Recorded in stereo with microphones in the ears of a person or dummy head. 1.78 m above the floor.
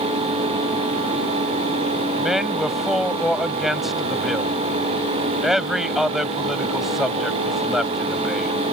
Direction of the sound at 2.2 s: Centre (ahead or behind).